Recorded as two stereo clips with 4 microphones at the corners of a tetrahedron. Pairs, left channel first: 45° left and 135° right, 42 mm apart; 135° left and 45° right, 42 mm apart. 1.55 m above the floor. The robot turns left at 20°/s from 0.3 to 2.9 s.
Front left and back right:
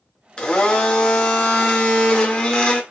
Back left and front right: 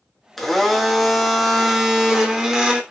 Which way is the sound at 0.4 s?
60° left.